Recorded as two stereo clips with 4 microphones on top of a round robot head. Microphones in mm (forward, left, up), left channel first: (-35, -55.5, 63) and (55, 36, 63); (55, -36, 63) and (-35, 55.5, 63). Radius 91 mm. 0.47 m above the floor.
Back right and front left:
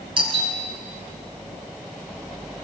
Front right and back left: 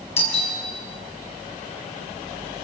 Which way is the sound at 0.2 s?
5° right.